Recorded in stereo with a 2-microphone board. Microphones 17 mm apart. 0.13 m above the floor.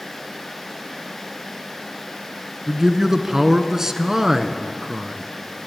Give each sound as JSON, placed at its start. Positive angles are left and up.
{"t": 2.7, "sound": "a man speaking", "side_deg": -25, "distance_m": 1.3}